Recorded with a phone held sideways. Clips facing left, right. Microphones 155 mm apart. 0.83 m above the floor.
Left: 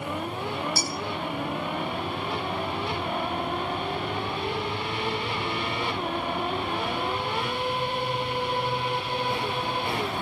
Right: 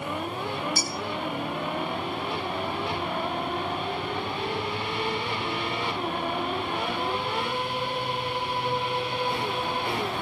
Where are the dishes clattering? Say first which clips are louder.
Left 1 dB; 85° left, 6.5 m.